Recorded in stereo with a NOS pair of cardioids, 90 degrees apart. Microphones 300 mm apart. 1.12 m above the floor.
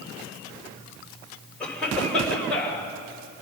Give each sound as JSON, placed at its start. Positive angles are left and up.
{"t": 1.6, "sound": "a cough", "azimuth_deg": 5, "distance_m": 5.5}